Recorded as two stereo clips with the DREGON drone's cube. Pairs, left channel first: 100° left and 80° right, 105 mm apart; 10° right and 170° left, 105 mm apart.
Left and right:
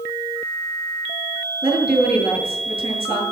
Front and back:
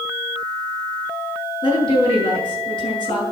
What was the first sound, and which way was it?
A woman speaking, 55° right.